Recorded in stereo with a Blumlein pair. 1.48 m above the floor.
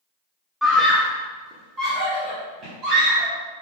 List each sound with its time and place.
0.6 s a scream: straight ahead, 0.6 m; by 3.3 s 35° right, 3.5 m